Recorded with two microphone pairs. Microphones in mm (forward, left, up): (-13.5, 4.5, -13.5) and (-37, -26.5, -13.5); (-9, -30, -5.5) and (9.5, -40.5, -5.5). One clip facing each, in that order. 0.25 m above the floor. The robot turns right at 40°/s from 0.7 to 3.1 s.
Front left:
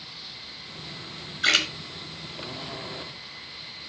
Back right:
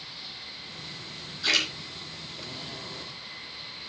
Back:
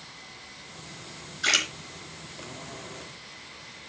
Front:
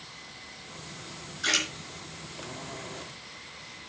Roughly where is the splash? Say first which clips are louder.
Front left 3 dB, back 3 dB; left.